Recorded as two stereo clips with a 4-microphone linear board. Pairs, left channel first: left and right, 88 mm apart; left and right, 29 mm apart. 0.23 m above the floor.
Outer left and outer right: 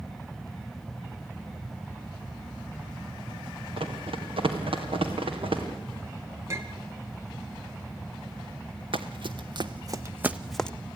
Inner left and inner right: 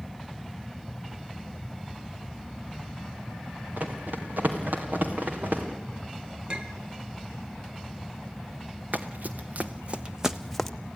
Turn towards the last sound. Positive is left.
turn(degrees=10)  # may be behind; listen again after turning